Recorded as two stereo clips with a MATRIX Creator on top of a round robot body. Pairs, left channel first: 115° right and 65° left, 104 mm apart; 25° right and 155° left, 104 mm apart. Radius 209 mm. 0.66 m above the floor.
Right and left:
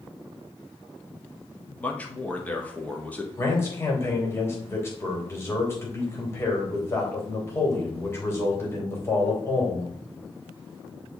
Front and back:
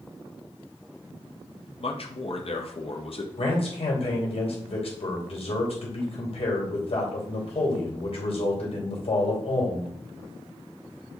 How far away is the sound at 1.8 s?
About 1.6 m.